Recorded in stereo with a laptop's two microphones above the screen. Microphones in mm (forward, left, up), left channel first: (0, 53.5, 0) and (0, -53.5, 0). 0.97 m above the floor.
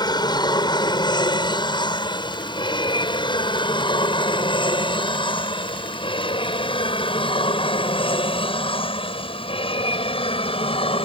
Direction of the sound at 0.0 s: 40° left (ahead or behind).